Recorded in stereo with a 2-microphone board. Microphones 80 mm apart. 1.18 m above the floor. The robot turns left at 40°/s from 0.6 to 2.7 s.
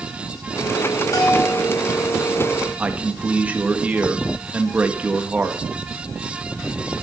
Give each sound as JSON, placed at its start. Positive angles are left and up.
{"t": 1.1, "sound": "a bell", "side_deg": 50, "distance_m": 2.5}
{"t": 2.8, "sound": "a man speaking", "side_deg": -15, "distance_m": 1.6}